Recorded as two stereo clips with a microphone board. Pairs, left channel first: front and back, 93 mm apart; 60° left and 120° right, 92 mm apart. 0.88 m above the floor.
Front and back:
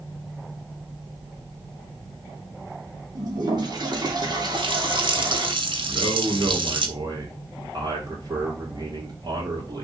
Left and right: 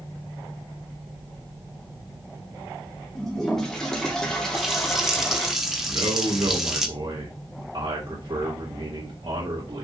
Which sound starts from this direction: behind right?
A man speaking, at 5.9 s.